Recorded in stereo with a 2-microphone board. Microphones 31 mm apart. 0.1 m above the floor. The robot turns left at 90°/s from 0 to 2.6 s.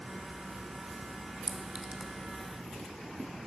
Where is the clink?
25° right (ahead or behind), 0.7 m; by 2.1 s 30° right (ahead or behind), 0.7 m.